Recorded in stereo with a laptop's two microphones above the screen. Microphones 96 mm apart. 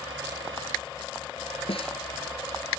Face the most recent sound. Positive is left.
turn(degrees=75)  # may be behind; listen again after turning